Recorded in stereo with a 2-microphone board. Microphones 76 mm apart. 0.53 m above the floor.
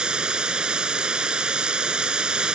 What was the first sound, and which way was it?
Running water, 10° right (ahead or behind).